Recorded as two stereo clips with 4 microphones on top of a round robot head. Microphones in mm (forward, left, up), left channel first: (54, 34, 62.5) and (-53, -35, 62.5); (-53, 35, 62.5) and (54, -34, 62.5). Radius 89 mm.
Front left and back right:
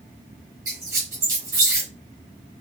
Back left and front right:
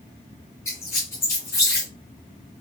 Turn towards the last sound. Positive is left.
turn(degrees=-175)